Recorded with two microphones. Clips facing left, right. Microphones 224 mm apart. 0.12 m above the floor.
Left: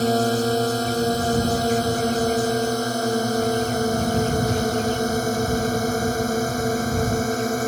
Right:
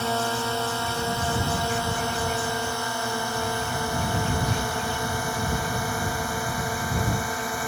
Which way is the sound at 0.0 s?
40° left (ahead or behind).